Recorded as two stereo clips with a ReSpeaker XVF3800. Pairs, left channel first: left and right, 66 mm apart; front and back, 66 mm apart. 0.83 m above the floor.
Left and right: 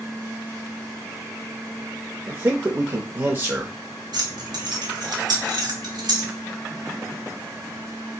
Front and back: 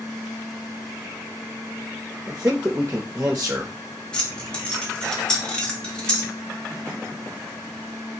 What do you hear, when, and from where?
2.3 s a man speaking: 125° right, 0.5 m
4.1 s keys jangling: 75° right, 0.8 m